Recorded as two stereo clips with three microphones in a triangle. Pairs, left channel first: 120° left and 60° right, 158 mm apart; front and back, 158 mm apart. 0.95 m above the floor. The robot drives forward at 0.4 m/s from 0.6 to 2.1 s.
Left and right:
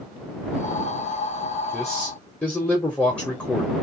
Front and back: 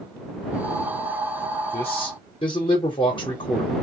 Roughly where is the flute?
I don't hear a flute.